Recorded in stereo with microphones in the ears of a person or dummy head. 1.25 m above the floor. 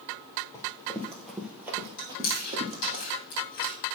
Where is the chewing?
65° left (ahead or behind), 2.5 m.